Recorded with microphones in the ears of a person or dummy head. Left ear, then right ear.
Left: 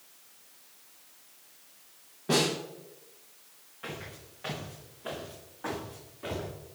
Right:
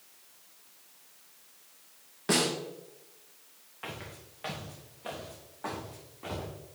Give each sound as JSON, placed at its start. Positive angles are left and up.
{"t": 2.3, "sound": "a snare drum", "side_deg": -65, "distance_m": 3.5}
{"t": 3.8, "sound": "footsteps", "side_deg": -30, "distance_m": 4.0}